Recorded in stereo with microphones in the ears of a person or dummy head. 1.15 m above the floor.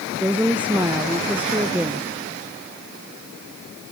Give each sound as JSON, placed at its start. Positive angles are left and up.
{"t": 0.2, "sound": "a woman speaking", "side_deg": -15, "distance_m": 0.7}